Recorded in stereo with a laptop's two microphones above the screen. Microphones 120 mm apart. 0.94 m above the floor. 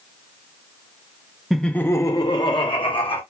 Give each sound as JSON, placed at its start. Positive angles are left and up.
{"t": 1.5, "sound": "laughter", "side_deg": 0, "distance_m": 0.5}